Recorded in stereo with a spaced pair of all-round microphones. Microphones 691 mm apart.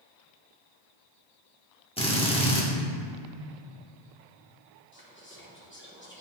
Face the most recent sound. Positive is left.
turn(degrees=15)  # may be behind; listen again after turning